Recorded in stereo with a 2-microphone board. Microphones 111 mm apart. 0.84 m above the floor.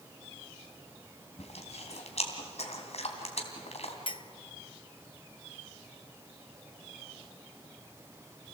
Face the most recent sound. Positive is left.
turn(degrees=50)  # may be behind; listen again after turning